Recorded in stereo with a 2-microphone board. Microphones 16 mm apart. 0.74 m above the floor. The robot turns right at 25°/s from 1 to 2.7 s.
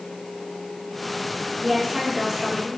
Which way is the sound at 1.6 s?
45° right (ahead or behind).